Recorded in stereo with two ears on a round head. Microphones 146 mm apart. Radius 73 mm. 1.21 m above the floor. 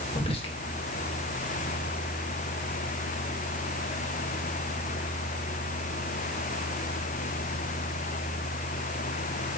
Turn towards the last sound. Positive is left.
turn(degrees=35)  # may be behind; listen again after turning